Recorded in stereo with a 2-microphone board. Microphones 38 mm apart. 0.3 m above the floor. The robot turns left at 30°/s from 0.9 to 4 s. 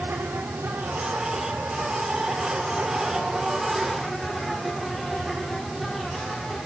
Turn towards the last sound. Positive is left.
turn(degrees=-175)